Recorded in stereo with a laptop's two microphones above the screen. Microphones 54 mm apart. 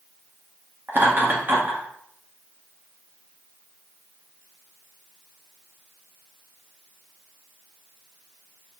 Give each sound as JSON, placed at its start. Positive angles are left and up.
{"t": 0.9, "sound": "laughter", "side_deg": -40, "distance_m": 0.9}